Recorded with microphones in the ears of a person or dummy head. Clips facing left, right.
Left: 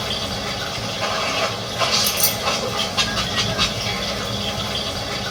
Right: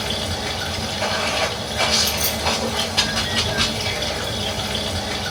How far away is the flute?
I don't hear a flute.